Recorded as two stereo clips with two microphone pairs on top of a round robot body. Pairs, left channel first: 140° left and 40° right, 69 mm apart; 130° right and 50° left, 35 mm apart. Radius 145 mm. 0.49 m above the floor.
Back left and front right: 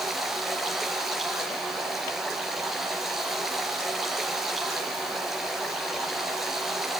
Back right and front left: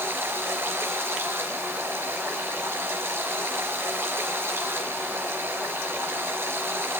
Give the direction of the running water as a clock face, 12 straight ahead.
10 o'clock.